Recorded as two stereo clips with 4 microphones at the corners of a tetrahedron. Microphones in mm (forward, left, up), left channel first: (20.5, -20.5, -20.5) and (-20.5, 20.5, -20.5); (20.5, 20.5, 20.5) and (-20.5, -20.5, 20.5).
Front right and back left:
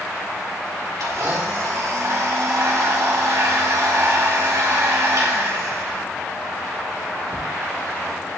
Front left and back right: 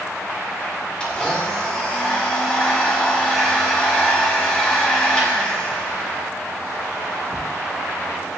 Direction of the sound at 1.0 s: 120° left.